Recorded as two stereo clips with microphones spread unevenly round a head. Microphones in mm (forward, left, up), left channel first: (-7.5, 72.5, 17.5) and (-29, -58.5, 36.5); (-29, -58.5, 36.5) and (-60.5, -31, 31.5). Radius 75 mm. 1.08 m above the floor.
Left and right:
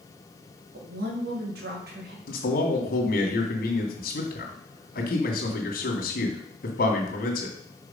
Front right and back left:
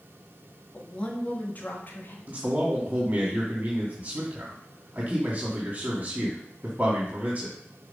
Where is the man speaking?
65° left, 2 m.